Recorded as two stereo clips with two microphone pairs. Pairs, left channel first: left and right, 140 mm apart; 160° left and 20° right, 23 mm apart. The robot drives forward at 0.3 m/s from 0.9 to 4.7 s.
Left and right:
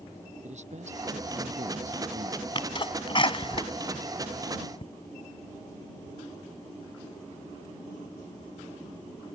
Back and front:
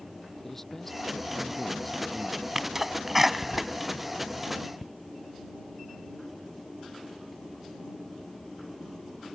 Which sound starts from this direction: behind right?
A man speaking, at 0.4 s.